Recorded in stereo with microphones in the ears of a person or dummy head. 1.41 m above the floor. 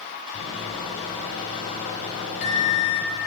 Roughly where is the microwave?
Left.